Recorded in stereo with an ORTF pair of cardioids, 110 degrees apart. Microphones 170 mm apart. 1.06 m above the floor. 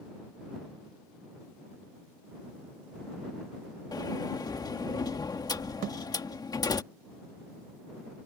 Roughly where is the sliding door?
Ahead left.